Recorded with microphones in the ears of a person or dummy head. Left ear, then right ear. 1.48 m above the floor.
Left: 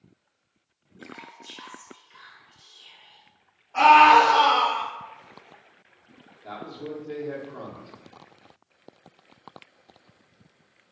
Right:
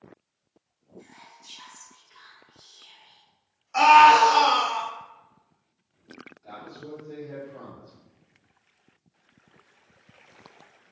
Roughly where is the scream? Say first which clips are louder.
Even; right.